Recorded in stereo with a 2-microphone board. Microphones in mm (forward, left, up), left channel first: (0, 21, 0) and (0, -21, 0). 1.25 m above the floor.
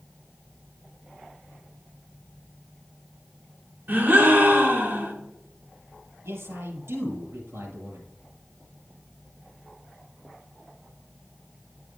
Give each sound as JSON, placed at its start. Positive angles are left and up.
{"t": 3.9, "sound": "a gasp", "side_deg": -50, "distance_m": 1.6}
{"t": 6.2, "sound": "a man speaking", "side_deg": -80, "distance_m": 5.5}